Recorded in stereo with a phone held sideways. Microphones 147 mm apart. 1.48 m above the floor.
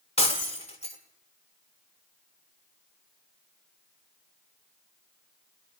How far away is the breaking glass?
About 1.5 m.